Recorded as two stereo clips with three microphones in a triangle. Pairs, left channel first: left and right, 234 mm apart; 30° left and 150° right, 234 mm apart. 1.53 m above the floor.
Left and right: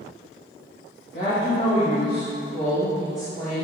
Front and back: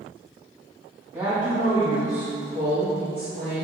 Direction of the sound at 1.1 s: 130° left.